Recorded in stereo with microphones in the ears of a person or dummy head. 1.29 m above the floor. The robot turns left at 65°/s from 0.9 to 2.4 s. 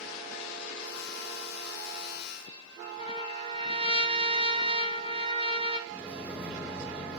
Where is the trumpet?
30° right (ahead or behind), 3 m.